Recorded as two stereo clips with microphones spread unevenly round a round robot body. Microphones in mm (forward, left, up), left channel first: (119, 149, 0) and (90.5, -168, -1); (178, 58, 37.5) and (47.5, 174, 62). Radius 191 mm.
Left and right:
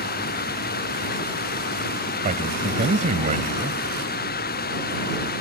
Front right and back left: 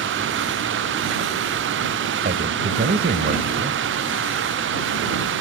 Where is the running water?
155° left.